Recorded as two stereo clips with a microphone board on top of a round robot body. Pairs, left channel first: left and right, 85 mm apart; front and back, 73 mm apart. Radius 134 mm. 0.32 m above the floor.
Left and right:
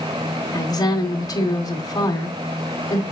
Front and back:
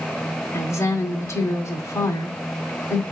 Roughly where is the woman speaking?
Ahead left.